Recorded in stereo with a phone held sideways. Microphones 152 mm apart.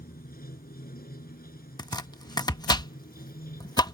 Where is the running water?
80° left.